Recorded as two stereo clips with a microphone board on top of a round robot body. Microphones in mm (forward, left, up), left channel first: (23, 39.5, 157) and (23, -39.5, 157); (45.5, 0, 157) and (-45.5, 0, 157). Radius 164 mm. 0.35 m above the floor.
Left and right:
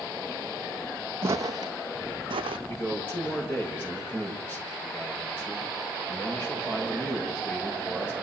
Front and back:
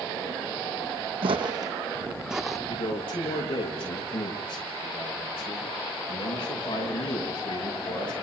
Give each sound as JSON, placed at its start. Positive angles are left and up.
{"t": 1.2, "sound": "footsteps", "azimuth_deg": -155, "distance_m": 0.8}
{"t": 2.7, "sound": "a man speaking", "azimuth_deg": 20, "distance_m": 10.0}